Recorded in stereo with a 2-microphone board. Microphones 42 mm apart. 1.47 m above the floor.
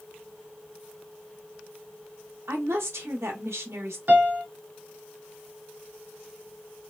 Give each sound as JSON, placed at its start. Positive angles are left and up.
{"t": 2.5, "sound": "a woman speaking", "side_deg": -85, "distance_m": 0.9}
{"t": 4.1, "sound": "a piano", "side_deg": -40, "distance_m": 0.8}